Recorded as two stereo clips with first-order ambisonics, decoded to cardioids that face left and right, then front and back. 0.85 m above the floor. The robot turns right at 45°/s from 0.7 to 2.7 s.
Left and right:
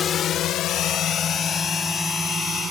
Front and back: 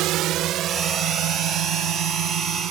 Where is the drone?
150° left; by 2.7 s 155° right.